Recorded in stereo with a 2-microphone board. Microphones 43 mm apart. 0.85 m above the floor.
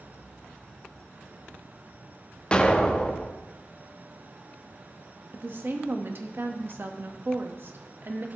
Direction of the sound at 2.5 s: 20° left (ahead or behind).